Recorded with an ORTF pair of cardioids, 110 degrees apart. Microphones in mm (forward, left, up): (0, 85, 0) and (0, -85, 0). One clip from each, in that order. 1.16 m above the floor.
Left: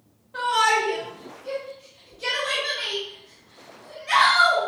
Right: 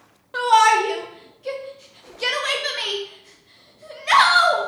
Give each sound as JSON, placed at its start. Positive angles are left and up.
{"t": 0.3, "sound": "a shout", "azimuth_deg": -65, "distance_m": 0.8}